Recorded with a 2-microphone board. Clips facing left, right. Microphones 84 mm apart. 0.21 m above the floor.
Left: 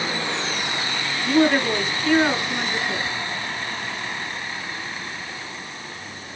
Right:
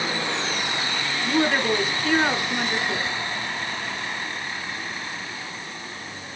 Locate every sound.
1.2 s a woman speaking: 5° right (ahead or behind), 1.2 m